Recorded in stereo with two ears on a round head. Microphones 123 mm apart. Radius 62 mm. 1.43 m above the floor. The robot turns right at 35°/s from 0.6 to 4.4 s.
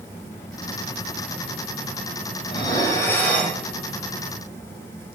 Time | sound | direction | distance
2.5 | dishes clattering | 140° left | 6.5 m